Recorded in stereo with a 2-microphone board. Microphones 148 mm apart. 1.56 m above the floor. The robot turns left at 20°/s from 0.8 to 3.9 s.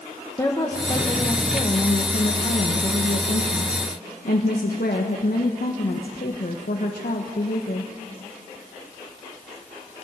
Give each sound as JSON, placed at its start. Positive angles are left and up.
{"t": 0.4, "sound": "a woman speaking", "azimuth_deg": 160, "distance_m": 1.6}